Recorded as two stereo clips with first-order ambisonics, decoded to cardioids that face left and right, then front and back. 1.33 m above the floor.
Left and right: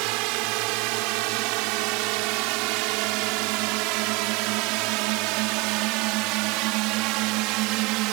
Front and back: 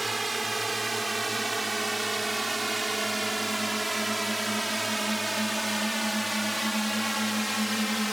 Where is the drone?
100° right; by 8.1 s 90° right.